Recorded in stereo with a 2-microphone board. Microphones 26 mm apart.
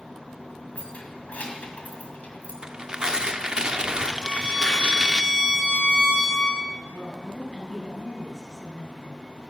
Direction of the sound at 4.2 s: 65° left (ahead or behind).